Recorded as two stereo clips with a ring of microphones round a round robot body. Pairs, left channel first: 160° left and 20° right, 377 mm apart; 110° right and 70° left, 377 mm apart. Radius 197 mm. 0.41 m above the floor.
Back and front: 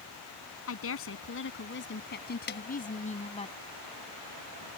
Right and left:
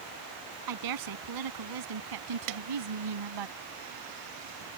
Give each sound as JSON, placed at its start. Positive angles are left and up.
{"t": 0.7, "sound": "a woman speaking", "azimuth_deg": 105}
{"t": 2.5, "sound": "a snare drum", "azimuth_deg": 95}